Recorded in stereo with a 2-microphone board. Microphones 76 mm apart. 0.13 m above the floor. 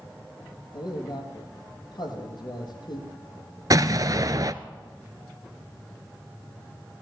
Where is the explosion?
50° right (ahead or behind), 0.8 m.